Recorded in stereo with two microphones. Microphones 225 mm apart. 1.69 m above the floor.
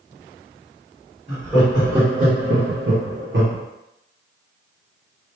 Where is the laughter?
10° right (ahead or behind), 1.2 m; by 3.6 s 60° right (ahead or behind), 0.8 m.